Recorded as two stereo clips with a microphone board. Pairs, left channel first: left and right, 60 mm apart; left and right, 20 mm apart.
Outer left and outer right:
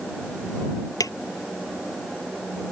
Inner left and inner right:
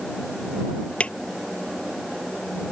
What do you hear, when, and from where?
1.0 s a drawer: 75° left (ahead or behind)